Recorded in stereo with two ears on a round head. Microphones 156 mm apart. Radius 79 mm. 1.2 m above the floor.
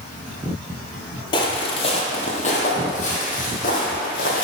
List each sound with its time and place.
1.3 s footsteps: 25° left (ahead or behind), 1.5 m; by 4.5 s 50° left (ahead or behind), 3 m